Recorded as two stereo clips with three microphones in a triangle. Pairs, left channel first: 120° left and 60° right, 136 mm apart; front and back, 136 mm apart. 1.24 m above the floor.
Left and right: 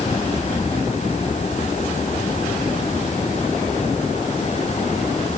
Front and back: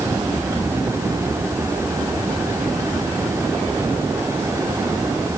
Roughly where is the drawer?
I don't hear a drawer.